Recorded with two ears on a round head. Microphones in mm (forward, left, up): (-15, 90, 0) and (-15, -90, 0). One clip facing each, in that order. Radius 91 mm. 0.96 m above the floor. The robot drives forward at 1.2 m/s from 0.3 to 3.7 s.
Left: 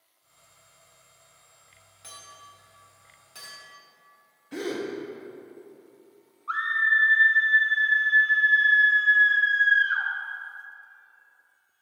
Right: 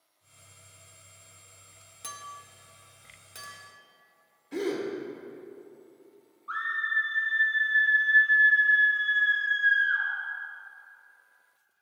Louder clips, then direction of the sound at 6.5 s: Left 6 dB; 85° left.